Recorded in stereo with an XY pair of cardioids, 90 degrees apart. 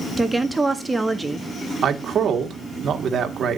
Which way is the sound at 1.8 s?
60° right.